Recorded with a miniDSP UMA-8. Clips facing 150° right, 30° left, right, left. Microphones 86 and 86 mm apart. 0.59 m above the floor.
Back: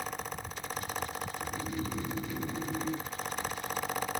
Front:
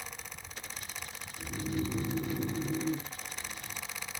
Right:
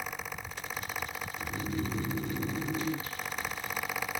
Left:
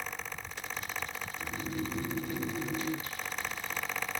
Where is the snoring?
30° right, 1.6 m.